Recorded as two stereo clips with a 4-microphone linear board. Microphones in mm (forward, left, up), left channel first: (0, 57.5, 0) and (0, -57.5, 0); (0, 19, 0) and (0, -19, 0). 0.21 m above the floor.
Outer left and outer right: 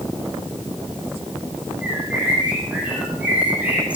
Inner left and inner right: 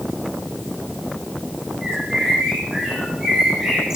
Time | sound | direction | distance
1.8 | a bird | 10° right (ahead or behind) | 8 m